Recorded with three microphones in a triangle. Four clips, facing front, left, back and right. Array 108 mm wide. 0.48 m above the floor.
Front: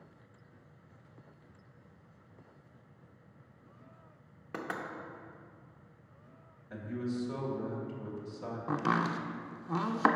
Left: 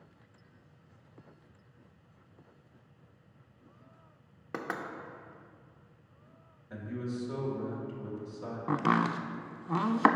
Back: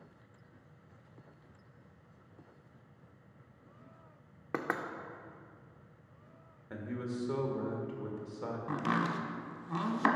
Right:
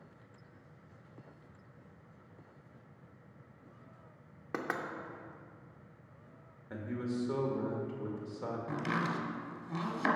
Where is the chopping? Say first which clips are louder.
Left 9 dB, front 3 dB; 70° left, 0.6 m.